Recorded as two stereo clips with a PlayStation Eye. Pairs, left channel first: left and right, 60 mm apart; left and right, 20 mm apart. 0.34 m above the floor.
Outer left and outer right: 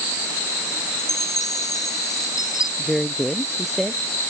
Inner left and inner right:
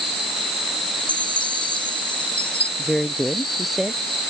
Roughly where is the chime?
Left.